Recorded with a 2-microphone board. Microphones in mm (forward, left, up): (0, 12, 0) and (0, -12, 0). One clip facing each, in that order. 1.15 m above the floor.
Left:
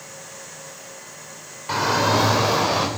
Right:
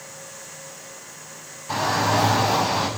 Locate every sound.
1.7 s a shout: 50° left (ahead or behind), 3 m; by 2.9 s 60° left (ahead or behind), 4.5 m